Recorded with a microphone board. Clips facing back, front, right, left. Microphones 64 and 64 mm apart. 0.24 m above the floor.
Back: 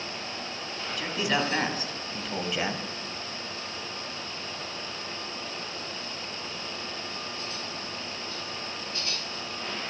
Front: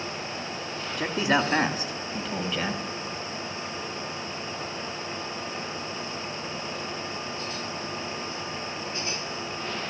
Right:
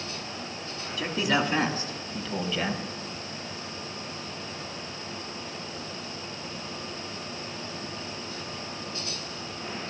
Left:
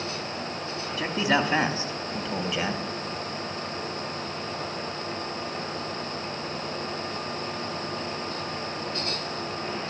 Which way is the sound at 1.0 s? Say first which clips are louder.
Front 4 dB, left 2 dB; 40° left.